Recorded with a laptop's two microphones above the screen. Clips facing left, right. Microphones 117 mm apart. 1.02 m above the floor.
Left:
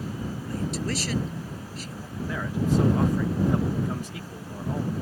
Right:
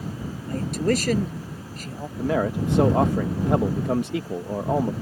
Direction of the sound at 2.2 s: 70° right (ahead or behind).